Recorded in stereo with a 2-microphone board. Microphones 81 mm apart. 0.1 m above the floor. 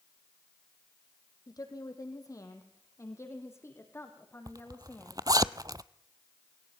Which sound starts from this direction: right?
A zipper, at 4.5 s.